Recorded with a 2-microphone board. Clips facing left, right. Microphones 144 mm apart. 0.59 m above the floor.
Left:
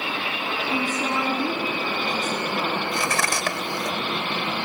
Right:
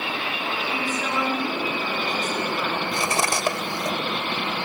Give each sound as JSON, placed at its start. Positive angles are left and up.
{"t": 0.7, "sound": "a woman speaking", "side_deg": 25, "distance_m": 7.0}
{"t": 2.9, "sound": "cutlery clinking", "side_deg": -25, "distance_m": 1.2}